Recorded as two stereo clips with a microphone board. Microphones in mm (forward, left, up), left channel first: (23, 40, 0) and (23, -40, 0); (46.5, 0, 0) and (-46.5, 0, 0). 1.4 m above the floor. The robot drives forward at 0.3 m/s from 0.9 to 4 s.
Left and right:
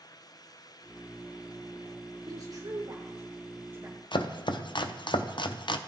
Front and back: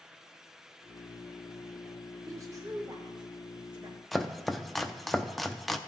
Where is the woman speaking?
125° right, 0.7 m; by 4.0 s 150° right, 1.1 m.